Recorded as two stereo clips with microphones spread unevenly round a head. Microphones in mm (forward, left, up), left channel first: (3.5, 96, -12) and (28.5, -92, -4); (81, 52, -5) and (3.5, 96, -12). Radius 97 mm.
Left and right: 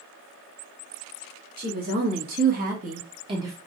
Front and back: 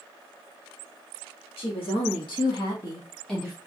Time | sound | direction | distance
1.6 | a woman speaking | 40° right | 1.7 m